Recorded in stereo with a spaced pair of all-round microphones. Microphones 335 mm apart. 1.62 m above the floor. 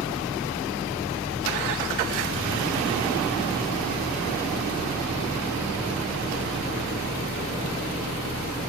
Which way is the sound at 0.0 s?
5° right (ahead or behind).